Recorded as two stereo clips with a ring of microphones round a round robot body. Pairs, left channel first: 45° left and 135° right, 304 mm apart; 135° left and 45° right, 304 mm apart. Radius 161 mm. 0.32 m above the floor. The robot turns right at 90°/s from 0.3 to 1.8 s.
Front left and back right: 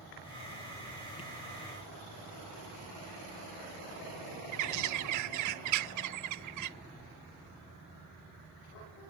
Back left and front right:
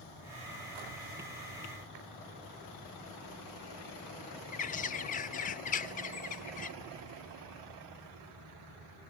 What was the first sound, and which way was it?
A bird, 160° right.